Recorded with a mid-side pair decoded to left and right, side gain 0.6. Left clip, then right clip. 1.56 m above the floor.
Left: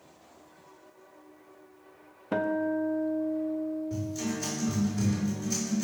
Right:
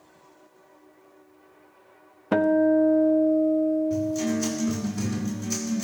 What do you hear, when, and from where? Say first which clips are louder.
2.3 s a guitar: right 9 dB; 40° right, 0.6 m
3.9 s a guitar: right 8 dB; 30° right, 5.5 m